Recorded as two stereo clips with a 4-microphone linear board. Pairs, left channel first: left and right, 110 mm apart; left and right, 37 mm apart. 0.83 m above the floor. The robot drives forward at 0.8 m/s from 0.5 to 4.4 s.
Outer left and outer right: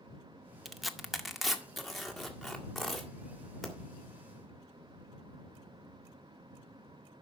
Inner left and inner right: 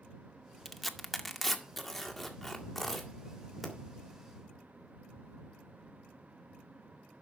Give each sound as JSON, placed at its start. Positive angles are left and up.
{"t": 0.7, "sound": "tearing paper", "side_deg": 0, "distance_m": 0.6}